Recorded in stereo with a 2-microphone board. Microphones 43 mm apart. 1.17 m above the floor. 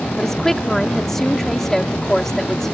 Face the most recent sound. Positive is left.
turn(degrees=10)  # may be behind; listen again after turning